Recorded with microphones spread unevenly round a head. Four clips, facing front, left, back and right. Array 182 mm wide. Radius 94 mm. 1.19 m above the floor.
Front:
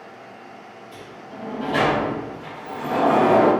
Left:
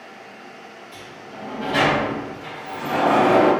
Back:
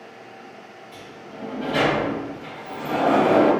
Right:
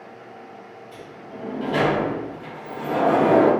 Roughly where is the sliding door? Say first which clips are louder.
Right 1 dB, front 1 dB; ahead right.